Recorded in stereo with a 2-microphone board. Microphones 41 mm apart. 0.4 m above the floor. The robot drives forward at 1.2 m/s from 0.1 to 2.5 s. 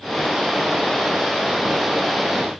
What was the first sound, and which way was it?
Only background noise.